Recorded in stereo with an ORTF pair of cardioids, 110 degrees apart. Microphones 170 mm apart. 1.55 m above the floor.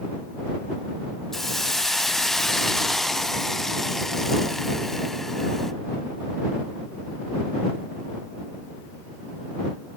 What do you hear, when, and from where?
1.3 s a hiss: straight ahead